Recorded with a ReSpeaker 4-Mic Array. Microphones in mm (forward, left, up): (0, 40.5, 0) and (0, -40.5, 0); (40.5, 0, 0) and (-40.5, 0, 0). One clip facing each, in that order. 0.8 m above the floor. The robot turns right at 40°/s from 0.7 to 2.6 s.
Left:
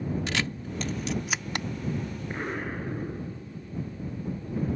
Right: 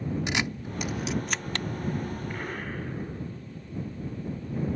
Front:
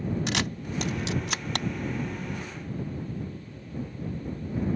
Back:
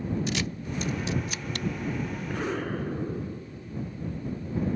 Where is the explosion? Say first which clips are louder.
Left 2 dB, back 6 dB; 155° left; by 3.7 s 165° left.